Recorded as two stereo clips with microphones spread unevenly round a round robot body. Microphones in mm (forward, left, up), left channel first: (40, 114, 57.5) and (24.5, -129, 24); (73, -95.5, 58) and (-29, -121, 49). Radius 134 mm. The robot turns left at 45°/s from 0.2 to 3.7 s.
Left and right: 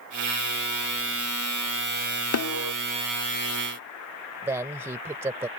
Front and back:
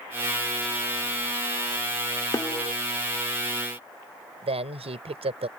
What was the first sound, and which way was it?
A snare drum, 80° left.